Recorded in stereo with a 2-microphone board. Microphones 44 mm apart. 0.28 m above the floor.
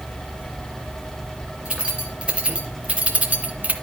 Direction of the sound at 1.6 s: 25° right (ahead or behind).